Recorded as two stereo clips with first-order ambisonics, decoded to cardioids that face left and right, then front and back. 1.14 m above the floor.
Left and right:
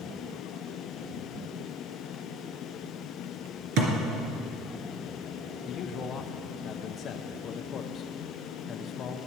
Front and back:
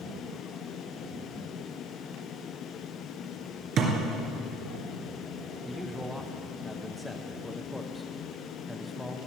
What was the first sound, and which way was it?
A thud, 125° right.